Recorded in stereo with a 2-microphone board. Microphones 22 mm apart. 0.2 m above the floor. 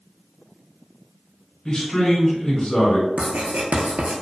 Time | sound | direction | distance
1.6 | a man speaking | 35° left (ahead or behind) | 1.5 m
3.2 | writing | 85° right | 0.6 m